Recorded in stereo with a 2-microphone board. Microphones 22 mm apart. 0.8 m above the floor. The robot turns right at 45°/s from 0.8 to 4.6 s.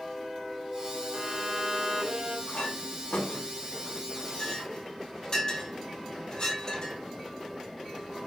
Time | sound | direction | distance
1.1 | a violin | straight behind | 2.5 m
2.5 | a clink | 50° left (ahead or behind) | 4.5 m